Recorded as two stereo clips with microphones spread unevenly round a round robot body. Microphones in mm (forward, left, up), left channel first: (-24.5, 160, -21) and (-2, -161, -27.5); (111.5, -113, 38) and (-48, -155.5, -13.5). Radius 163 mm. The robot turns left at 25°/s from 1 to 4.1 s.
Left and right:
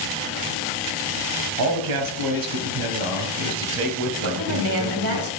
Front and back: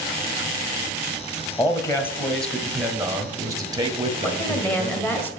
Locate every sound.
1.6 s a man speaking: 60° right, 1.5 m; by 5.2 s 125° right, 1.5 m
4.2 s a woman speaking: 75° right, 1.7 m